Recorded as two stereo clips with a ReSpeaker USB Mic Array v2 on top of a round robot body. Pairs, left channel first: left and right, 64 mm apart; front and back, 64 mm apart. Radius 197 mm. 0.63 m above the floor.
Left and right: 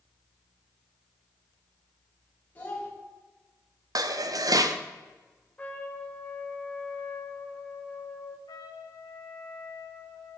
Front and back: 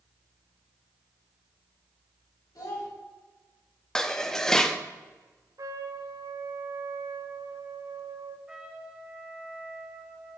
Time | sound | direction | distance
2.5 | a child speaking | 25° left | 4 m
4.0 | dishes clattering | 80° right | 0.9 m
5.6 | a trumpet | 155° left | 1.2 m
8.5 | a trumpet | 100° left | 0.9 m